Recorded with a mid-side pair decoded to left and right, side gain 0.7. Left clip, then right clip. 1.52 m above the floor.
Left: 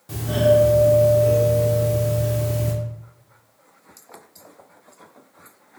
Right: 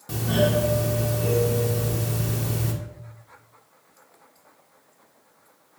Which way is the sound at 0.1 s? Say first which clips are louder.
Left 6 dB; 20° right.